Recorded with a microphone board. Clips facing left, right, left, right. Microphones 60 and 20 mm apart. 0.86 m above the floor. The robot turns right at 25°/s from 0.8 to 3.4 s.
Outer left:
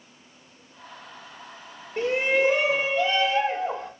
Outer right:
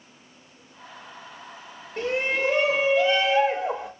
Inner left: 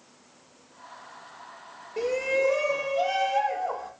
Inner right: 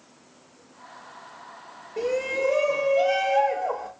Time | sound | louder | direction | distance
2.0 | a shout | outer left 3 dB, even | 160° left | 4 m